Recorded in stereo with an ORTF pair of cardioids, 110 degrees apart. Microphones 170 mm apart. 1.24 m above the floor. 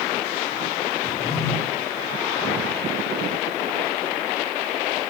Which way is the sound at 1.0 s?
35° left.